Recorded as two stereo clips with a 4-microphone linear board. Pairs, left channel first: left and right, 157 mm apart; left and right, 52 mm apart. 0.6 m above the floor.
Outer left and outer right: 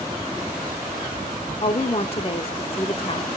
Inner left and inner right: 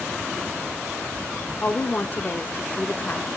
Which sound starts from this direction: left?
A woman speaking, at 1.6 s.